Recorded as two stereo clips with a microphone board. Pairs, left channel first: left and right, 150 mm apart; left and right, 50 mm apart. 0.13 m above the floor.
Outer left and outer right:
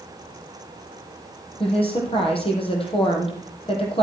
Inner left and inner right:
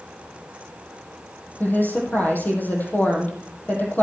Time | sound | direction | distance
1.6 | a woman speaking | 35° left (ahead or behind) | 3.5 m